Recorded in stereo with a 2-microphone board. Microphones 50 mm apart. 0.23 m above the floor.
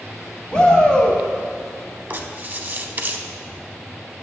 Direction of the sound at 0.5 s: 20° left (ahead or behind).